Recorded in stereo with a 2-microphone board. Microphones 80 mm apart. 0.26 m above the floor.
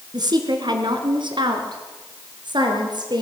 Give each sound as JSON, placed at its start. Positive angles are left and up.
{"t": 0.1, "sound": "a woman speaking", "side_deg": -60, "distance_m": 4.0}